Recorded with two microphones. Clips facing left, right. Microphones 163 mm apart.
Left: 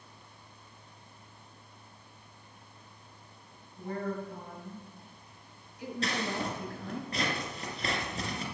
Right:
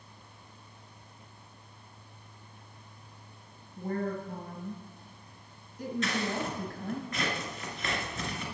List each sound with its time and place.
3.8 s a woman speaking: 45° right (ahead or behind), 1.8 m
6.0 s scissors: 35° left (ahead or behind), 1.9 m